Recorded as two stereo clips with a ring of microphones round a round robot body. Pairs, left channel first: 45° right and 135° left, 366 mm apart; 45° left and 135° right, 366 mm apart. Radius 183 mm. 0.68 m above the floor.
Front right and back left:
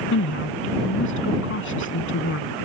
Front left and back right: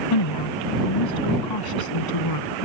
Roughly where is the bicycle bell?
No bicycle bell in this recording.